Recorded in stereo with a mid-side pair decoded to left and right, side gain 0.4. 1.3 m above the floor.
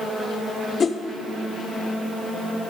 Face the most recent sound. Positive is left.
turn(degrees=45)